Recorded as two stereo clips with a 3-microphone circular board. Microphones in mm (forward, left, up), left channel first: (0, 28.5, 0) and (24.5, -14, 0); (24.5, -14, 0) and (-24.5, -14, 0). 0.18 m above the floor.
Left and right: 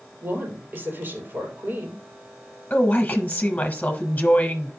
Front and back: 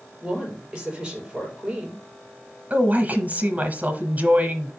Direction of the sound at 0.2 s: 110° right.